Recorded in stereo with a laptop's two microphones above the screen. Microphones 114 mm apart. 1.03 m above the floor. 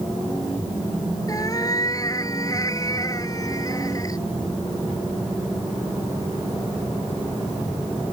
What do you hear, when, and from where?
1.3 s a cat meowing: 35° left (ahead or behind)